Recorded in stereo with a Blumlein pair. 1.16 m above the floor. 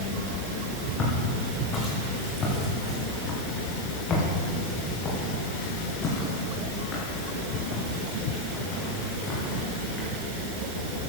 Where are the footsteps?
25° left, 4 m.